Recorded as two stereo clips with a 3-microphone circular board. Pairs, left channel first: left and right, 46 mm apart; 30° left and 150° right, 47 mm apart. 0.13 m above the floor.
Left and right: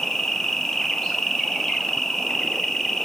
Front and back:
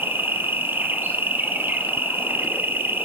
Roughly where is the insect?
Behind.